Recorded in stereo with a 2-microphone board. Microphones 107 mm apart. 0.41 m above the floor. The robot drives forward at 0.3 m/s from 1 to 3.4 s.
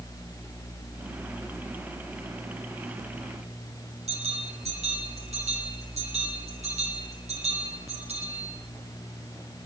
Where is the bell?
85° right, 10 m.